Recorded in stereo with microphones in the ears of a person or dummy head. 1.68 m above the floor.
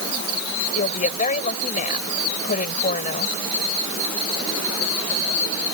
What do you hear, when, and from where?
0.7 s a woman speaking: 50° left (ahead or behind)